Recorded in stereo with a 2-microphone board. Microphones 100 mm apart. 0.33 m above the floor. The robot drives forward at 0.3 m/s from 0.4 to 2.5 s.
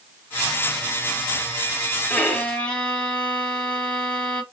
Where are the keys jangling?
I don't hear keys jangling.